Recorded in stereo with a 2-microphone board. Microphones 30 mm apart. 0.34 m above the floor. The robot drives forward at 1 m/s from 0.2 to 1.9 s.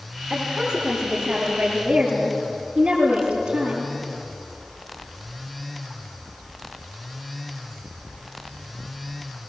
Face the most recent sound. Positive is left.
turn(degrees=-50)  # may be behind; listen again after turning